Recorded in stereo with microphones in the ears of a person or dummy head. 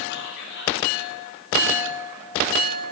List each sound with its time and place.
0.1 s whispering: 60° left (ahead or behind), 5.5 m